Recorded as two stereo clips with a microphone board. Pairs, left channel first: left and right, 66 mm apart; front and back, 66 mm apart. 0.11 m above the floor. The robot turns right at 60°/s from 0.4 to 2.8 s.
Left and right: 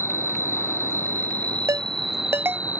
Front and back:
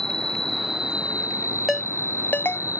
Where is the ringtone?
95° right; by 2.6 s 35° right.